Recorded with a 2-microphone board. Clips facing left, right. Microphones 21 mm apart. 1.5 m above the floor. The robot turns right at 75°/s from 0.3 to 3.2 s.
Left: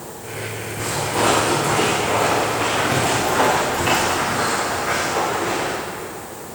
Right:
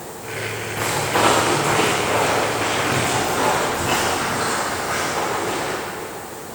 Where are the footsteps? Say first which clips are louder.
Right 2 dB; 75° right (ahead or behind), 6.5 m; by 5.7 s 50° left (ahead or behind), 6 m.